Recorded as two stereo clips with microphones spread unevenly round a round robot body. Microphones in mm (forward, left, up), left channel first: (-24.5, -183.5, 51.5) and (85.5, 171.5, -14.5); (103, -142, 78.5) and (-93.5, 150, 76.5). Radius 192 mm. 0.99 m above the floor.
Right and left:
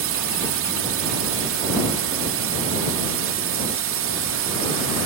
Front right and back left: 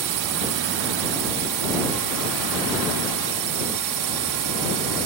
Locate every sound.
0.0 s a drone: 115° left